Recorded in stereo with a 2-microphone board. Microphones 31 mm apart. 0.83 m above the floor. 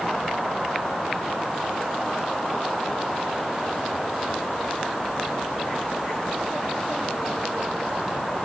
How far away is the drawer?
No drawer in this recording.